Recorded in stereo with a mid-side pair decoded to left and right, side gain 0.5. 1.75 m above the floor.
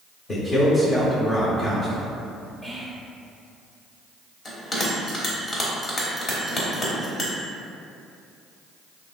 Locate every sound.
0.3 s a man speaking: 30° left, 0.7 m
2.6 s whispering: straight ahead, 0.8 m
4.5 s a bell: 30° left, 0.9 m